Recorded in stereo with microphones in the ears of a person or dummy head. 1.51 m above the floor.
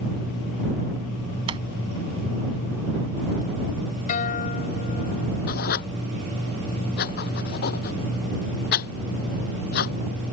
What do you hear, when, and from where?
1.5 s a sliding door: 30° right (ahead or behind)
4.1 s a guitar: 40° left (ahead or behind)
5.5 s writing: 50° left (ahead or behind)